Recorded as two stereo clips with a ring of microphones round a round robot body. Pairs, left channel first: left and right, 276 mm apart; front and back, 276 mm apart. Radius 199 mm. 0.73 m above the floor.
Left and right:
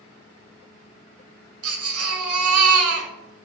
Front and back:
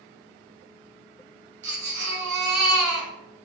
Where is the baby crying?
120° right, 2 m.